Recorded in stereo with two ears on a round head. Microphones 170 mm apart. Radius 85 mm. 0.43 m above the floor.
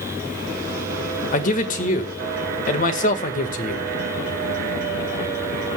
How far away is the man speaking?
About 1.6 m.